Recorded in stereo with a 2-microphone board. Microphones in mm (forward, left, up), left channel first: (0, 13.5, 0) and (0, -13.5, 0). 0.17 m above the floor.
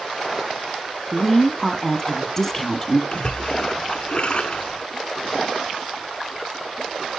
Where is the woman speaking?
15° left (ahead or behind), 1.1 m.